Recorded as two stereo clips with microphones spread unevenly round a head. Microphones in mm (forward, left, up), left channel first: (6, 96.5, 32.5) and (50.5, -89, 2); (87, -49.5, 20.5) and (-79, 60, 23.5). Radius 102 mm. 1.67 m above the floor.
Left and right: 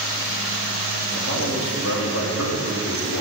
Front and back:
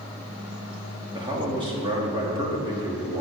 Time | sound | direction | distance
1.1 | a man speaking | 80° left | 2.5 m